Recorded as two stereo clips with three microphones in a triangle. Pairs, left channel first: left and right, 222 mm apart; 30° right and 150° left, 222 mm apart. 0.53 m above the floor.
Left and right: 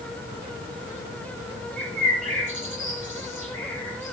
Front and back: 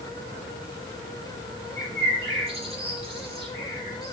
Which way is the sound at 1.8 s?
145° right.